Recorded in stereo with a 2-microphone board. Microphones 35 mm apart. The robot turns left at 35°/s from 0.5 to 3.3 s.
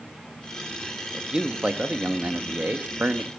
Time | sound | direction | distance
1.1 | a man speaking | 25° right | 1.0 m